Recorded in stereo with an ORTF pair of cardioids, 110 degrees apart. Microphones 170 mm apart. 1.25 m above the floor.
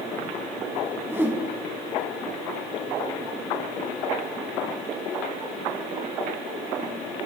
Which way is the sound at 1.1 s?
15° right.